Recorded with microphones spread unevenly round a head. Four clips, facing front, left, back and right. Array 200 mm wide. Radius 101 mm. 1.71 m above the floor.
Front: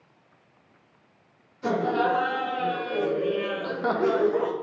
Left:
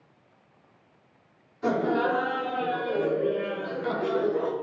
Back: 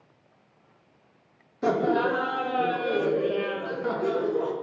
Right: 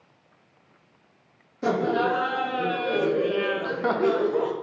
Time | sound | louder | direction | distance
1.6 | laughter | right 1 dB, back 1 dB | 145° right | 1.1 m